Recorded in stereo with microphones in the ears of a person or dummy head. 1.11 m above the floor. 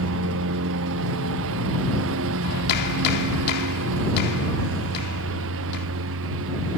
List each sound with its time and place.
0.0 s a lawn mower: 70° right (ahead or behind)
2.4 s a clap: 55° left (ahead or behind)